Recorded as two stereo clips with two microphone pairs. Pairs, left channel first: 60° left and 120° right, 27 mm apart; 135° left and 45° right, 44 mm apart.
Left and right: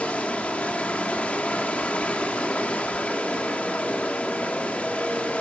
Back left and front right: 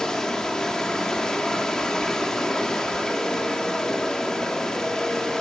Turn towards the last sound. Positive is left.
turn(degrees=60)